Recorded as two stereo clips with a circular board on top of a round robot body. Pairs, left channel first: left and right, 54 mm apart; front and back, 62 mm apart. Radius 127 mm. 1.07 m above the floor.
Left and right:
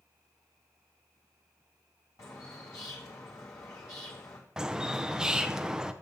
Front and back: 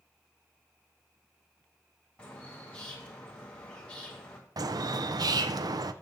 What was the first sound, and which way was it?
A bird, 70° left.